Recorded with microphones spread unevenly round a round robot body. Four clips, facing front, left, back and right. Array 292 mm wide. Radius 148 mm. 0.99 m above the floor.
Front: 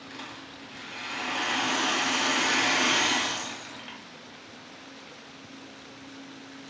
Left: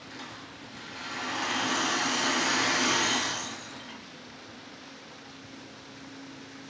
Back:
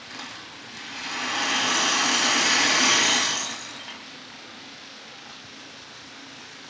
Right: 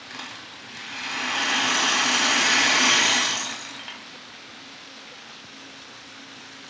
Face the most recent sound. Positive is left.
turn(degrees=-110)